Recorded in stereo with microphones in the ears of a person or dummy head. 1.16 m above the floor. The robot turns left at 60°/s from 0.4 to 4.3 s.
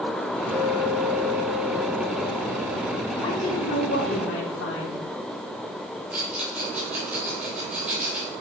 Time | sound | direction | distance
0.5 | a clink | 25° right | 1.9 m
3.2 | a woman speaking | 150° left | 2.5 m
6.1 | a rattle | 5° right (ahead or behind) | 3.5 m